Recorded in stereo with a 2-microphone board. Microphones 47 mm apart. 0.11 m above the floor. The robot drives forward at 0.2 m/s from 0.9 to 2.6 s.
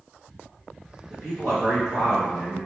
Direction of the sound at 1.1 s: 10° left (ahead or behind).